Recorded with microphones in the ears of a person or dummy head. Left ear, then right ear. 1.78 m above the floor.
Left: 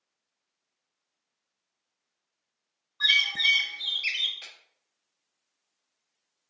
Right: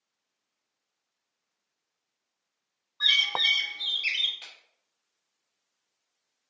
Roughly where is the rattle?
I don't hear a rattle.